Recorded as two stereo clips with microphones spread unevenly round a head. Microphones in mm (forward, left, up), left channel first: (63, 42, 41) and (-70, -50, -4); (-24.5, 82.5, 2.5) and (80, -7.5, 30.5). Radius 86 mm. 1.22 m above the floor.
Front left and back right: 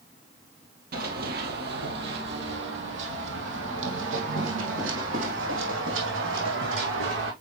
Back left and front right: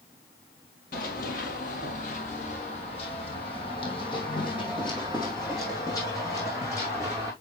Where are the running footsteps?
175° left, 2 m; by 7.3 s 145° right, 4.5 m.